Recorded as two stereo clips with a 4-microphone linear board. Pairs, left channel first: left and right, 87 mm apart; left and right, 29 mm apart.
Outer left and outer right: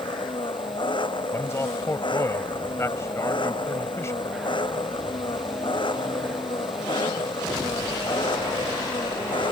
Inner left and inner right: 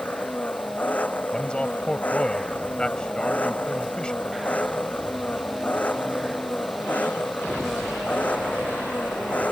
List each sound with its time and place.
0.0 s an engine running: 75° left (ahead or behind)
1.3 s a man speaking: 35° left (ahead or behind)